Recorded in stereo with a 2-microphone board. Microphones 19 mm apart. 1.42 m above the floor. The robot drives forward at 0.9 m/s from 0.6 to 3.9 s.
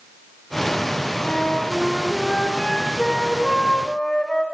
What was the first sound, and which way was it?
A flute, 55° left (ahead or behind).